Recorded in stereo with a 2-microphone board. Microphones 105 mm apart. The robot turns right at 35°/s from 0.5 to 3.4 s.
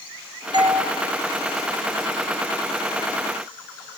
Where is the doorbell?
45° right (ahead or behind), 0.9 m.